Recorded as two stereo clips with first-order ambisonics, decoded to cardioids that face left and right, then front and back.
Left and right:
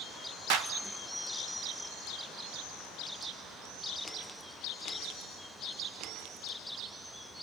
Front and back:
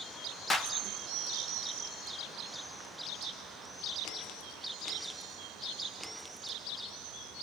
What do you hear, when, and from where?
0.5 s a clap: 70° right, 1.5 m